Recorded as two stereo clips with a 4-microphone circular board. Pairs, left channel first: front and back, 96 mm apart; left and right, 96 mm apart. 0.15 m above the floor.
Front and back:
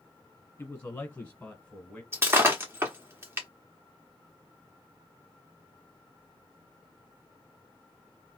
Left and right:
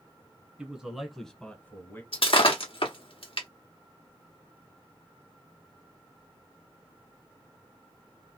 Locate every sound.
0.6 s a man speaking: 35° right, 1.4 m; by 2.0 s 70° left, 1.4 m
2.1 s breaking glass: 115° left, 1.3 m